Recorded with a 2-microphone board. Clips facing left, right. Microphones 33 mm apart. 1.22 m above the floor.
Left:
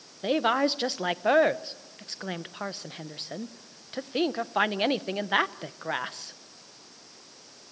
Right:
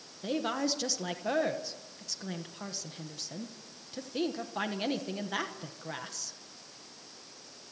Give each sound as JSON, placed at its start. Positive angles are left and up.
{"t": 0.2, "sound": "a woman speaking", "side_deg": 40, "distance_m": 0.9}